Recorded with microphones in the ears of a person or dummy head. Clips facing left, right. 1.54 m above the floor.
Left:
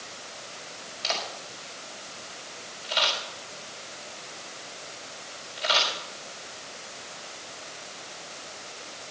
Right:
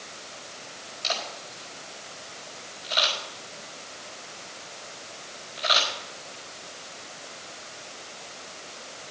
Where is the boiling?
I don't hear boiling.